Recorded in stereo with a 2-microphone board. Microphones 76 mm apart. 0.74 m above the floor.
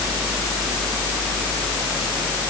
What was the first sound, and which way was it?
Only background noise.